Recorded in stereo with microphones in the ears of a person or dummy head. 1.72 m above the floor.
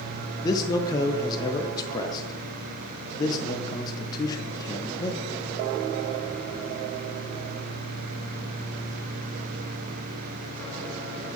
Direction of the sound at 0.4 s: 25° left (ahead or behind).